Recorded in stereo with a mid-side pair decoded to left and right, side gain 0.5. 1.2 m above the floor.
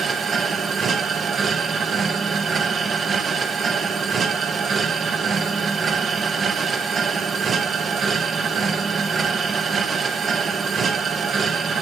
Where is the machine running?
40° right, 1.2 m.